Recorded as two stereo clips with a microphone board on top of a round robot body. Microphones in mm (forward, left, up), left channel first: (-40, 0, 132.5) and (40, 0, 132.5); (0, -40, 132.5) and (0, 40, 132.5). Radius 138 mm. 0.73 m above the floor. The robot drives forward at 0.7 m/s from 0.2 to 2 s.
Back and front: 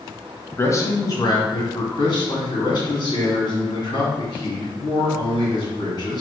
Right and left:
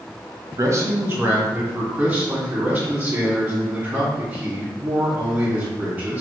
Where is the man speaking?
130° left, 0.8 m; by 6.2 s 160° left, 1.5 m.